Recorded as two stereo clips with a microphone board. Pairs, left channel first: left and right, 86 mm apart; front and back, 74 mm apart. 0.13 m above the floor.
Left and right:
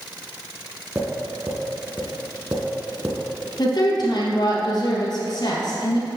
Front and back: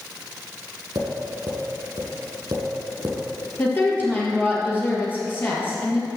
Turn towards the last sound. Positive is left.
turn(degrees=60)